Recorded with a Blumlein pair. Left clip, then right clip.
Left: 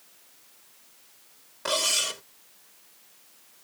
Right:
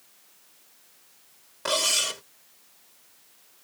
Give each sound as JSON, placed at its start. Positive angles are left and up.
{"t": 1.6, "sound": "cutlery clinking", "azimuth_deg": -10}